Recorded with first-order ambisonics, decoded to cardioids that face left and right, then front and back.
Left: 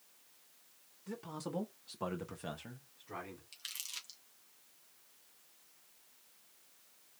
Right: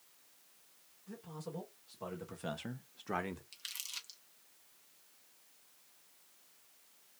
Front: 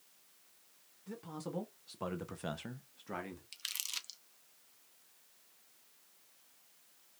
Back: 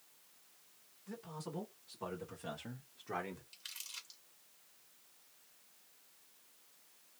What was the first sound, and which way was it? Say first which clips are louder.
A man speaking: left 4 dB, front 2 dB; 60° left.